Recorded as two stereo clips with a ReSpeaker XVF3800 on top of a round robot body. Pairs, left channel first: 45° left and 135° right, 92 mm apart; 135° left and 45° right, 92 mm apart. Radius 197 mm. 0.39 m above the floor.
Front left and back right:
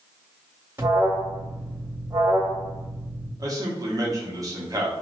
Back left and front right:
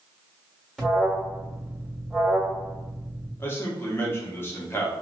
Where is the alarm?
140° right, 1.7 m.